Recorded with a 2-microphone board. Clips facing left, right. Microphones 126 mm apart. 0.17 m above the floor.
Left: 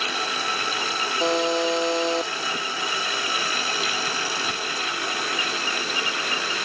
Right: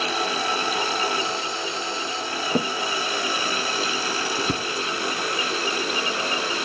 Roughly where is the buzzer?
Left.